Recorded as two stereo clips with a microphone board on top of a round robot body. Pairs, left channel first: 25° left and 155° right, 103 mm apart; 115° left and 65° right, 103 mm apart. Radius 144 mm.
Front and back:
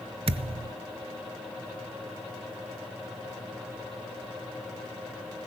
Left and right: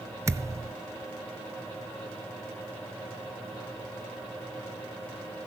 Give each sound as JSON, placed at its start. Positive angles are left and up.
{"t": 0.3, "sound": "a thud", "azimuth_deg": -130, "distance_m": 0.9}